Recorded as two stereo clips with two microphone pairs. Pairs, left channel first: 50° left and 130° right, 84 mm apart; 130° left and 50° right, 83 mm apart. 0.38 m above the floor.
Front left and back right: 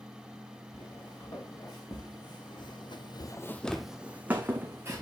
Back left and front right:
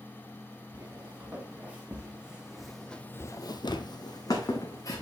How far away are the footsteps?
About 3 m.